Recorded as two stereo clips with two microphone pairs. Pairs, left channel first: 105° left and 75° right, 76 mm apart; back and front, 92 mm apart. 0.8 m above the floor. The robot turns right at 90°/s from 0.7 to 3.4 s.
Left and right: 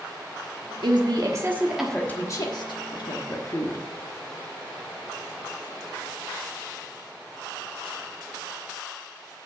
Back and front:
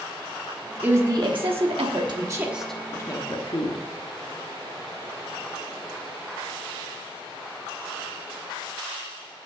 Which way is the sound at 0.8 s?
75° right.